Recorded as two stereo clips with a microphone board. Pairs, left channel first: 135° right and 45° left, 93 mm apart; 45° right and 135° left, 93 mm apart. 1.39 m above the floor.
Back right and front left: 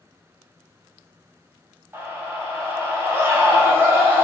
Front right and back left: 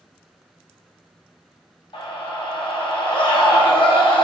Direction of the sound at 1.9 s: 20° right.